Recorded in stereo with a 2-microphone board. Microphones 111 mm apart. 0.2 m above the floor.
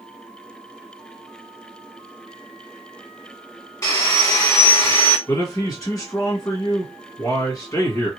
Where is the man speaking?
30° left (ahead or behind), 1.7 m.